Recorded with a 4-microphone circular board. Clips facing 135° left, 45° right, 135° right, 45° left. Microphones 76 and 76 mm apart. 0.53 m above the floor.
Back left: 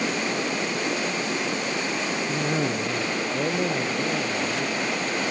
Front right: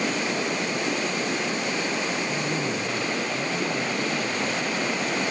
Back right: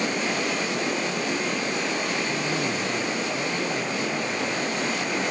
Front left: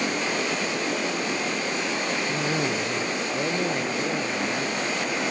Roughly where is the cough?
Left.